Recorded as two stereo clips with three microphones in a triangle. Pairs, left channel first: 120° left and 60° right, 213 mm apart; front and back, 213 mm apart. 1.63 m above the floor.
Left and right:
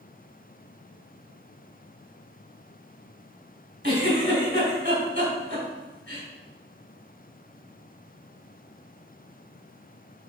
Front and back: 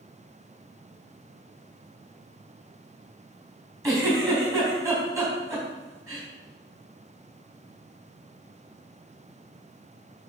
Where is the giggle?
105° right, 3.5 m.